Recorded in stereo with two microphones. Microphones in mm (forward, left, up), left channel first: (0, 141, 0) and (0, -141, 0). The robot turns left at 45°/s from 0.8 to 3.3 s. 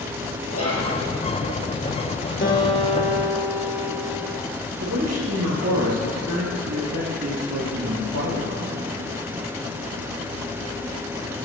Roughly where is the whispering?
Left.